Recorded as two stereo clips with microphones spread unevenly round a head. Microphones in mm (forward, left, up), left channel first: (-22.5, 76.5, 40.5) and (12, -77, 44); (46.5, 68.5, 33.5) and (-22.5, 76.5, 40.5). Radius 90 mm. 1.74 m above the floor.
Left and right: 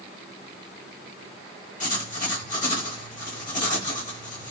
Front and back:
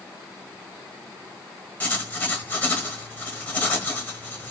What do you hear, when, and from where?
1.8 s writing: 55° left, 1.2 m